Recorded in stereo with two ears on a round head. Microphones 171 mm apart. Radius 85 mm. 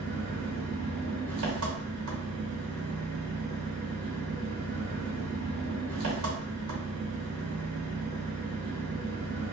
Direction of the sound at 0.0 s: 80° right.